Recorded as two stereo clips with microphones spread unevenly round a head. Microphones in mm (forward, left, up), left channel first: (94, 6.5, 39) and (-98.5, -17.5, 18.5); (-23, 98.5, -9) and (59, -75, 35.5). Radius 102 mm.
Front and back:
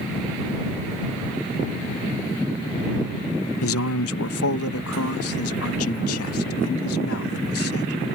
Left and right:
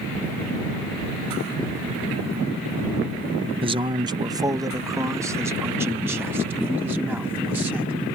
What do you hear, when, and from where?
3.6 s a man speaking: straight ahead; by 8.1 s 20° left